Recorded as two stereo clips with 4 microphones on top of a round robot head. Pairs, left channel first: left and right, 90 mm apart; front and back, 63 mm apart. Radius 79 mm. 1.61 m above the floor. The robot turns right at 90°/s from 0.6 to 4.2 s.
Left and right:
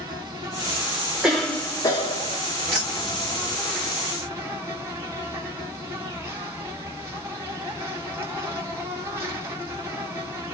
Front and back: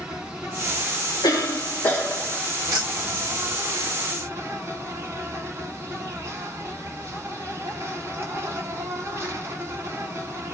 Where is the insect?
110° right, 1.2 m; by 10.5 s 145° right, 1.2 m.